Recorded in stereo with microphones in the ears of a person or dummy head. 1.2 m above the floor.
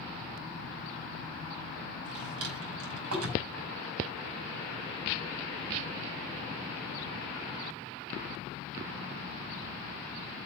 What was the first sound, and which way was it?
A drawer, 85° right.